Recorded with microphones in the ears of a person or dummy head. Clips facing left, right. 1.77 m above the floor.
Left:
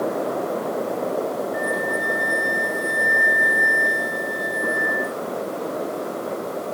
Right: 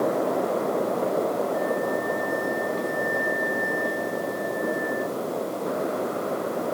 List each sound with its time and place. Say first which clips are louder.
1.5 s a flute: even; 75° left (ahead or behind)